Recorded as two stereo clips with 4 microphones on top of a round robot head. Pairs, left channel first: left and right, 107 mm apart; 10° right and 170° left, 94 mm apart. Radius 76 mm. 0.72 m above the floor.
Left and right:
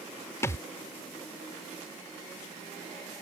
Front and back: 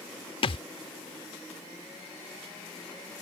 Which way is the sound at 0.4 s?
20° left.